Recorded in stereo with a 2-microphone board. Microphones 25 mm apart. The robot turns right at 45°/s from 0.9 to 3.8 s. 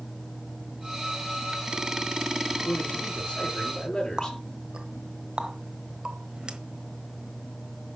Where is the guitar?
No guitar in this recording.